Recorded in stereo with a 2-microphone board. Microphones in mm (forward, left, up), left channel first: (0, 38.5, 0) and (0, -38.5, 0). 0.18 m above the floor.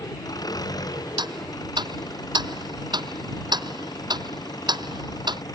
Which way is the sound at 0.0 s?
60° left (ahead or behind).